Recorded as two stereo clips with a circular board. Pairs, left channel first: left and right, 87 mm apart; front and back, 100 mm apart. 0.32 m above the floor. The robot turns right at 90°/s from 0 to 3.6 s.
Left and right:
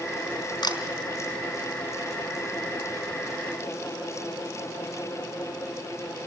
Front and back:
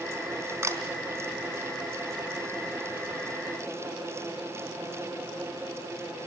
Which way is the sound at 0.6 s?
115° left.